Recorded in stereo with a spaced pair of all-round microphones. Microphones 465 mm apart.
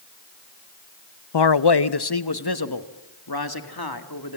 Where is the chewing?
No chewing in this recording.